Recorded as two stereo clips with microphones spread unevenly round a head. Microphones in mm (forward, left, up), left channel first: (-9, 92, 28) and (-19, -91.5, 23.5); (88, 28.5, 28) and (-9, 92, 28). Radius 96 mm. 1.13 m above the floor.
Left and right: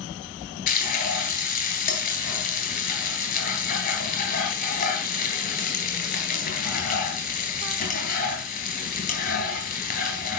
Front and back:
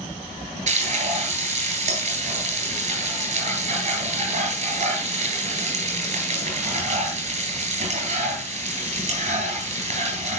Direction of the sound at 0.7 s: 130° left.